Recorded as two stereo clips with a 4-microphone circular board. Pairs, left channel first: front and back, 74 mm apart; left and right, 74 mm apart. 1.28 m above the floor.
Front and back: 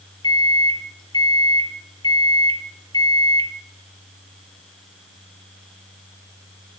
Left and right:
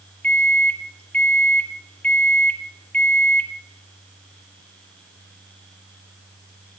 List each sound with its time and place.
0.2 s a microwave: 20° left, 0.6 m